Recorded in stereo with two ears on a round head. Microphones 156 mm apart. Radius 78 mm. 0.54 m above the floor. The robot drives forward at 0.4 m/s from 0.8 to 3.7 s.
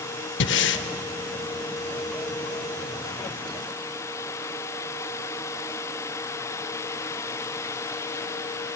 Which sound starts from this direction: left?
Breathing, at 0.4 s.